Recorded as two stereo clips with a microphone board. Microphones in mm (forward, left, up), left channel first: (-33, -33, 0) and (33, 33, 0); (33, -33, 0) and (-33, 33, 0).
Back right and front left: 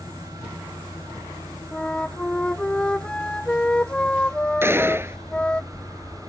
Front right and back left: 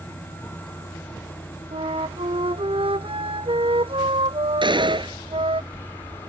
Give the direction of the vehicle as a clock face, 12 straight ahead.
2 o'clock.